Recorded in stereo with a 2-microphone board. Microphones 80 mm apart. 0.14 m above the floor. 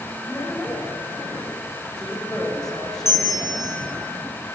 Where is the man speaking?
5° left (ahead or behind), 7.5 m.